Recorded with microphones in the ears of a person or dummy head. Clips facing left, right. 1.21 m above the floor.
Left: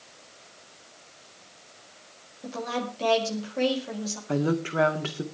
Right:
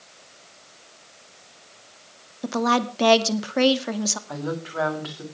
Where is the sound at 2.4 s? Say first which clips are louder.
Right 8 dB; 85° right, 1.8 m.